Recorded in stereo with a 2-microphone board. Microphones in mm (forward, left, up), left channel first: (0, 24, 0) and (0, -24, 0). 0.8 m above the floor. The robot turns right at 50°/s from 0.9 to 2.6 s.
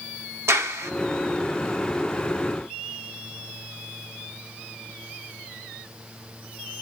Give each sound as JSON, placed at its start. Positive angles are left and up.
{"t": 0.5, "sound": "a clap", "side_deg": -70, "distance_m": 1.2}